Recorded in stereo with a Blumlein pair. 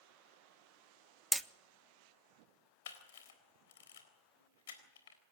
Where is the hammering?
5° right, 0.7 m.